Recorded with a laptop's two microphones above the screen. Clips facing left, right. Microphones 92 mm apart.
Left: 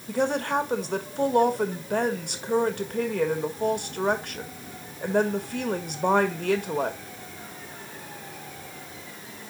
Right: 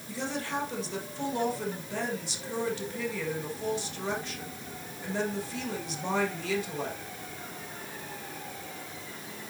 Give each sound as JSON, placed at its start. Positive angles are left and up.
{"t": 0.1, "sound": "a woman speaking", "side_deg": 55, "distance_m": 1.5}